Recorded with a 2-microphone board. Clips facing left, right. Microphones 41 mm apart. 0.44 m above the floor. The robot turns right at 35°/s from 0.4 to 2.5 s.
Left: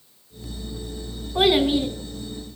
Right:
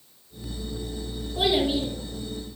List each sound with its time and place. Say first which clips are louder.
1.4 s a child speaking: left 5 dB; 65° left (ahead or behind), 2 m; by 1.9 s 80° left, 2 m